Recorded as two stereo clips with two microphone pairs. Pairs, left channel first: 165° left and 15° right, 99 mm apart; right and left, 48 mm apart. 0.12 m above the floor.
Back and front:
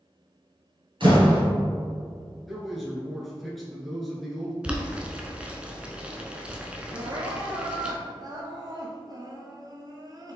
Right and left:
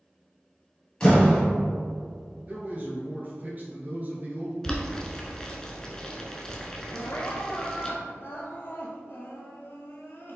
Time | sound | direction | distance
1.0 | a door slam | 20° right | 1.9 m
2.5 | a man speaking | 75° left | 1.4 m
4.6 | boiling | 50° right | 0.6 m
6.9 | crying | 55° right | 0.8 m